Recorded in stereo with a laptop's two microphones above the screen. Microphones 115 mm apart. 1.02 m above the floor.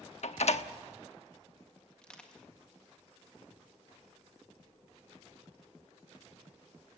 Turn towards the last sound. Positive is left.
turn(degrees=10)  # may be behind; listen again after turning